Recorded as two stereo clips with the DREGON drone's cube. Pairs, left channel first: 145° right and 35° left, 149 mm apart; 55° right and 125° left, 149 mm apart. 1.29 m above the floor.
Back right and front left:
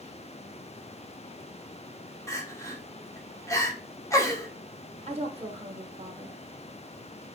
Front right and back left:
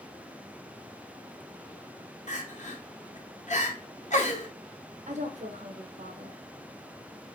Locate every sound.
2.3 s crying: 80° right, 1.0 m
5.1 s a woman speaking: 80° left, 1.2 m